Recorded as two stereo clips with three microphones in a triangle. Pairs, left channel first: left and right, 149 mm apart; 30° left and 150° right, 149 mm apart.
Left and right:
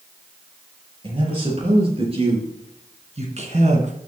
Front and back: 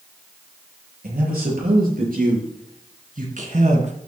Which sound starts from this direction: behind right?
A man speaking, at 1.0 s.